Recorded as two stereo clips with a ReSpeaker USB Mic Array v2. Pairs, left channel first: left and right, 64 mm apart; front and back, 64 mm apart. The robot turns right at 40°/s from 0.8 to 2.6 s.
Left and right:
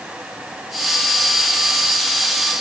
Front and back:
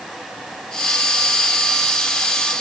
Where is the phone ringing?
No phone ringing in this recording.